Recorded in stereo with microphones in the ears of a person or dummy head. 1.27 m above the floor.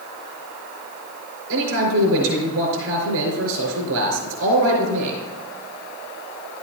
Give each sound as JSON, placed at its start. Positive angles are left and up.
{"t": 1.5, "sound": "a man speaking", "side_deg": -85, "distance_m": 5.0}